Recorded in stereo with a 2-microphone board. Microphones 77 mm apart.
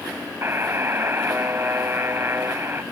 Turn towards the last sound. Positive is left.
turn(degrees=-30)  # may be behind; listen again after turning